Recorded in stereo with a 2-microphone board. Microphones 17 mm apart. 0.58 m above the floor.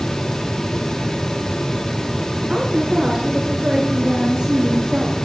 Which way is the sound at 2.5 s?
60° right (ahead or behind).